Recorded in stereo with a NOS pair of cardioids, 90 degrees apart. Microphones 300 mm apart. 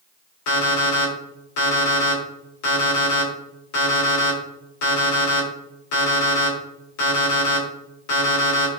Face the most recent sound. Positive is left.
turn(degrees=70)